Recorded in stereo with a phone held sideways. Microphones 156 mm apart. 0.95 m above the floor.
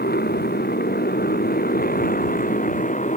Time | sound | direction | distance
0.0 | a motorcycle | 90° left | ?